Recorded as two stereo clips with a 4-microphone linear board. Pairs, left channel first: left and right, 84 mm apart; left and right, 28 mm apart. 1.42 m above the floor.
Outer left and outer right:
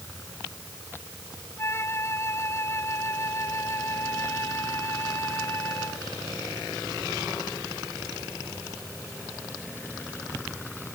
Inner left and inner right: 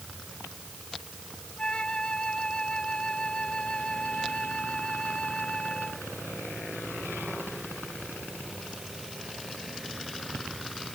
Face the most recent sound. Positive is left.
turn(degrees=35)  # may be behind; listen again after turning